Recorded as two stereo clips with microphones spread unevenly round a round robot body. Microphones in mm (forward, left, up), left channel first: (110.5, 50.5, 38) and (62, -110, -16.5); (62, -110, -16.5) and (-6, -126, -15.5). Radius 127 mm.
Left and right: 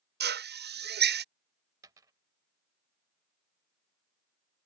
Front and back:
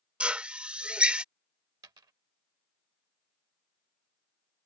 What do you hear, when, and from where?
0.2 s a drill: 90° right
1.8 s a dropped coin: 170° left